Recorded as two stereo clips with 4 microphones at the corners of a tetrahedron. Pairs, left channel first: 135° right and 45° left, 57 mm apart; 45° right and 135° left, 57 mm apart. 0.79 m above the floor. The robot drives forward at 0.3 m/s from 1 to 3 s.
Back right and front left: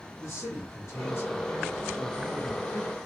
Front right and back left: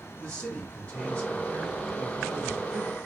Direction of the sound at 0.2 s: 95° right.